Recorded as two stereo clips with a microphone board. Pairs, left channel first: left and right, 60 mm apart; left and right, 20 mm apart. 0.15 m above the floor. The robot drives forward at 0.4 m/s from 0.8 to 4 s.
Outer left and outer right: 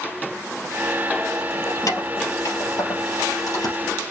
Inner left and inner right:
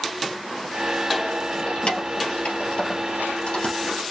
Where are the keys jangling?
65° left (ahead or behind), 3 m; by 3.8 s 70° left (ahead or behind), 3 m.